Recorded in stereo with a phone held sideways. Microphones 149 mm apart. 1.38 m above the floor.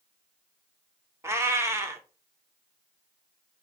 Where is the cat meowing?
20° right (ahead or behind), 0.7 m.